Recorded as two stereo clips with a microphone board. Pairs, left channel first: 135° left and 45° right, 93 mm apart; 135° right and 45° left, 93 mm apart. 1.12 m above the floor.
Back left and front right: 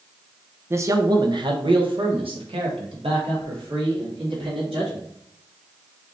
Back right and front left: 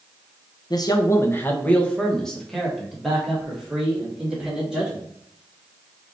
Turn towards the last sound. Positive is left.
turn(degrees=-35)